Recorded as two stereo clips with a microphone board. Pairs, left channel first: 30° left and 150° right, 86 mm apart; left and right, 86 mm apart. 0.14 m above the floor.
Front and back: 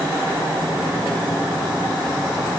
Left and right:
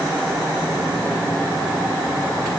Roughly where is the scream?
No scream in this recording.